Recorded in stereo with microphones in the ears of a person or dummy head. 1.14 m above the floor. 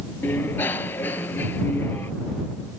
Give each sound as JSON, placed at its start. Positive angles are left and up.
{"t": 0.2, "sound": "a bicycle bell", "side_deg": 10}